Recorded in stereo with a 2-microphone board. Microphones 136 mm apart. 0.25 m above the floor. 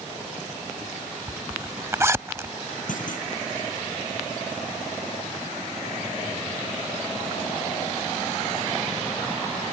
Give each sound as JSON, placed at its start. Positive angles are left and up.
{"t": 1.3, "sound": "a zipper", "side_deg": -20}
{"t": 2.9, "sound": "a clunk", "side_deg": 75}